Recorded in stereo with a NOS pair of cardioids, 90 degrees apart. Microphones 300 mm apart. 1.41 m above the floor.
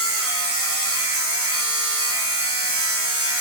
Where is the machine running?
50° right, 1.3 m.